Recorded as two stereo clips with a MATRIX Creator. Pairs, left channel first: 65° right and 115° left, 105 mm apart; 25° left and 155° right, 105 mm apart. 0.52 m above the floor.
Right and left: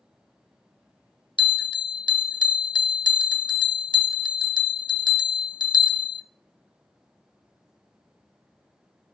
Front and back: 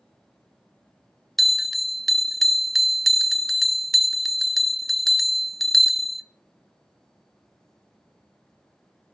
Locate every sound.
1.4 s a bell: 65° right, 0.6 m